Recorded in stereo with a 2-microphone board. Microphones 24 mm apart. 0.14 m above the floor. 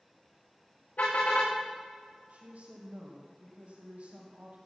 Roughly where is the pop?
I don't hear a pop.